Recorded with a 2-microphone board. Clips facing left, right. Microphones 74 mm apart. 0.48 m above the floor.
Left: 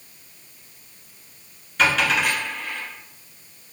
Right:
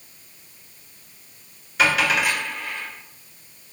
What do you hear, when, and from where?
1.8 s a dropped coin: 10° right (ahead or behind), 2.0 m